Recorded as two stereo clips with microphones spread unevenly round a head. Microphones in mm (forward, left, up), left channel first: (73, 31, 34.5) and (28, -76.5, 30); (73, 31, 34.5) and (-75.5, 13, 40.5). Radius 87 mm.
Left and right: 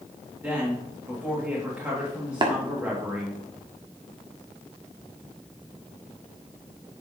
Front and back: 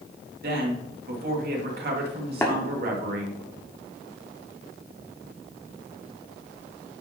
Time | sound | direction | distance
0.4 | a woman speaking | 165° left | 2.5 m
2.4 | tapping | 70° right | 1.6 m